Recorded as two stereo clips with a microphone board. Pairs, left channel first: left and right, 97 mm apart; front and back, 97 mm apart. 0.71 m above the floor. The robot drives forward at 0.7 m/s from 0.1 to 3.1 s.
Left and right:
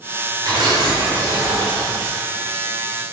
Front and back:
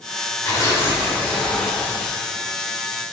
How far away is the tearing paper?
About 1.9 m.